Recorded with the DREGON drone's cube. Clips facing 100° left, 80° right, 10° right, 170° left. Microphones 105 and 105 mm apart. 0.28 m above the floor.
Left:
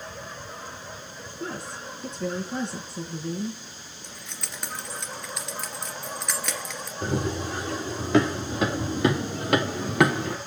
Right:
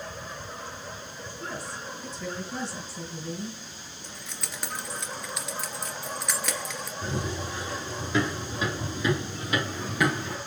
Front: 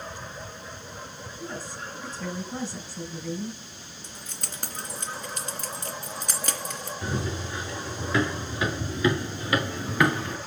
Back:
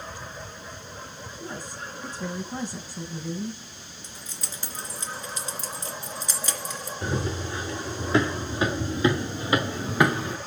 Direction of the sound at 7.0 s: 115° left.